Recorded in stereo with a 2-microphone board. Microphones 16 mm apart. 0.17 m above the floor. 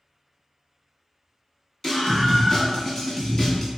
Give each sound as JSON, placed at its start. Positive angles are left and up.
{"t": 1.8, "sound": "a scream", "side_deg": 25, "distance_m": 1.2}